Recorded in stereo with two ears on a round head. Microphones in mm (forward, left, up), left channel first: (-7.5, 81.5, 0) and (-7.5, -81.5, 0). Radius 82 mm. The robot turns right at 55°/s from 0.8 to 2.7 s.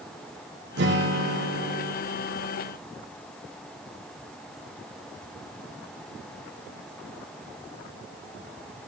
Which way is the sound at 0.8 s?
110° right.